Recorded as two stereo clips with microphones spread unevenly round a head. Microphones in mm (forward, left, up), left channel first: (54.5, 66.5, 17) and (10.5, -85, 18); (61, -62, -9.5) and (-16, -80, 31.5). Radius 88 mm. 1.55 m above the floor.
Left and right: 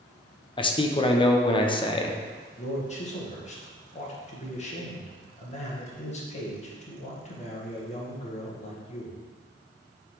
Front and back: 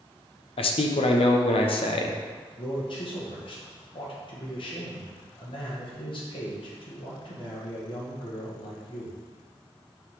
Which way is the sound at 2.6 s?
25° left.